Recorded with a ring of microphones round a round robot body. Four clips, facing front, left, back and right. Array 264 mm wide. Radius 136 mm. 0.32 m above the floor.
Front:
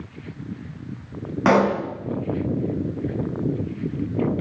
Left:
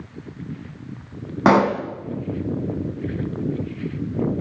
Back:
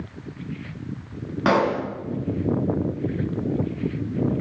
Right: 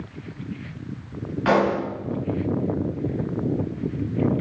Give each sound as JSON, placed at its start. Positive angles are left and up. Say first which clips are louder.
{"t": 1.4, "sound": "a pop", "louder": "left 4 dB, front 2 dB", "azimuth_deg": 85, "distance_m": 4.0}